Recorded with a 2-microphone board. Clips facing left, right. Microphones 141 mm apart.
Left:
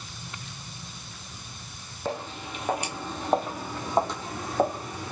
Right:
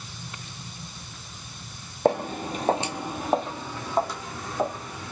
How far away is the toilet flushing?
I don't hear a toilet flushing.